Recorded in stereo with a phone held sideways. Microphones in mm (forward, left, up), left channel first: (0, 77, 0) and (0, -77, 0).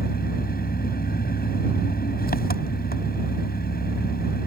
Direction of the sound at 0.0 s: 80° left.